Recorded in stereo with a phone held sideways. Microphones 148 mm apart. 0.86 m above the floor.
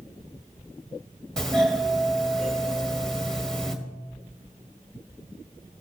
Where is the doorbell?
5° left (ahead or behind), 1.6 m.